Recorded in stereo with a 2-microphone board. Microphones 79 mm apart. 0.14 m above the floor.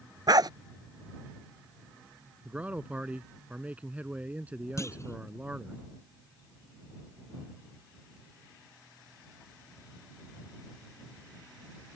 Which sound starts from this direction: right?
A dog barking, at 0.3 s.